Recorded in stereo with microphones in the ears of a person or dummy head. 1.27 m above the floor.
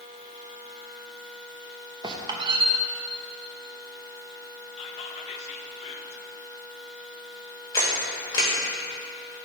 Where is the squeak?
20° right (ahead or behind), 0.7 m.